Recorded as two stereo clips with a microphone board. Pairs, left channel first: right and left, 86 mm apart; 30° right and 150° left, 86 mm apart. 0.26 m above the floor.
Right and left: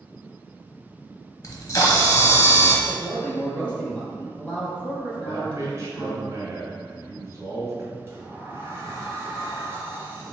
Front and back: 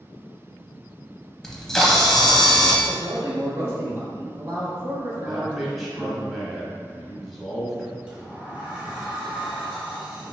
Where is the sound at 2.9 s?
160° right, 1.7 m.